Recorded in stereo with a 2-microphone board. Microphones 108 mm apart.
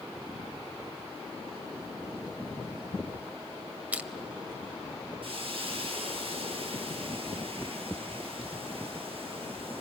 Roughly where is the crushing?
Centre.